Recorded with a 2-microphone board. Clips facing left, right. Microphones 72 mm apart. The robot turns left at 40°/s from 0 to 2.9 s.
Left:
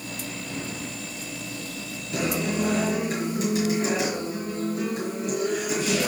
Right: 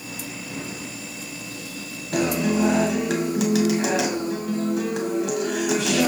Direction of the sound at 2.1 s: 65° right.